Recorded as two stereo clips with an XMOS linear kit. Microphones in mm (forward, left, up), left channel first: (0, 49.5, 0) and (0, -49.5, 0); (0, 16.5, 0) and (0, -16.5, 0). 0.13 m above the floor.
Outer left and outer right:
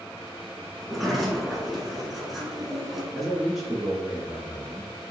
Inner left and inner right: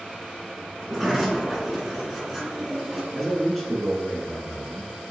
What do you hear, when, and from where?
0.8 s a sliding door: centre (ahead or behind), 1.3 m
3.1 s a man speaking: centre (ahead or behind), 1.5 m